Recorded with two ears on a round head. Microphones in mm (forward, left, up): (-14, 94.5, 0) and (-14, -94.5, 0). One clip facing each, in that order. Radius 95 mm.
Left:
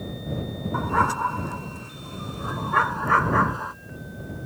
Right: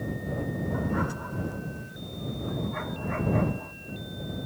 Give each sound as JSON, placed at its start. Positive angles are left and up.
{"t": 0.7, "sound": "a dog barking", "side_deg": 75}